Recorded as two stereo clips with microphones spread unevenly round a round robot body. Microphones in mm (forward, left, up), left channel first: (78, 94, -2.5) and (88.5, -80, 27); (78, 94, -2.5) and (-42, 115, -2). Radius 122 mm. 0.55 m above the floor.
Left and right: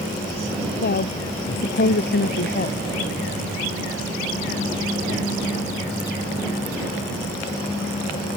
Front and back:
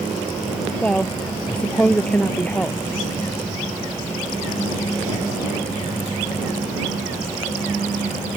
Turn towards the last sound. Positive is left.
turn(degrees=70)